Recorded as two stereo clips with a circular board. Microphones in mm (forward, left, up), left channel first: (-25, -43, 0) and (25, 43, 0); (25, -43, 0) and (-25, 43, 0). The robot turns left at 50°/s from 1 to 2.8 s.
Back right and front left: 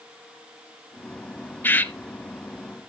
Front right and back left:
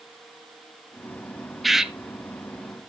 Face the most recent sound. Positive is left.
turn(degrees=150)